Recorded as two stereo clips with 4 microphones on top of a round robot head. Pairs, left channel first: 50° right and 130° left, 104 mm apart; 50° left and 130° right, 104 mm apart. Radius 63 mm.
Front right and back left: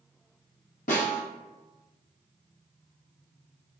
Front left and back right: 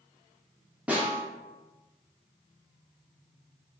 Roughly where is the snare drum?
Ahead right.